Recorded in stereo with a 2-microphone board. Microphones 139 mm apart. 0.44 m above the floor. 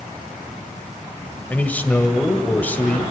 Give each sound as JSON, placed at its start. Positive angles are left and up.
{"t": 1.5, "sound": "a man speaking", "side_deg": 10, "distance_m": 1.8}